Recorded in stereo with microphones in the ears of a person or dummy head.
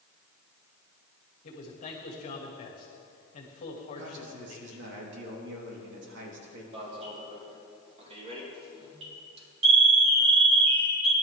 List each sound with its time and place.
1.4 s a man speaking: 45° left (ahead or behind), 2.5 m
4.0 s a man speaking: 75° right (ahead or behind), 3.5 m
6.7 s an alarm: 40° right (ahead or behind), 3.5 m